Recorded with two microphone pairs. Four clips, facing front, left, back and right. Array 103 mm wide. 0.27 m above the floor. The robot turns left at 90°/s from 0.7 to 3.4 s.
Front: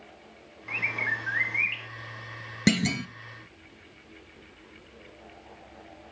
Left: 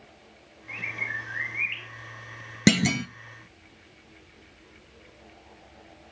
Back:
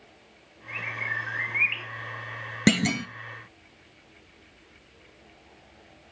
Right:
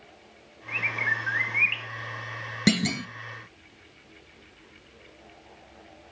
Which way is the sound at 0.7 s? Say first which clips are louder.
Right 6 dB, front 2 dB; 35° right.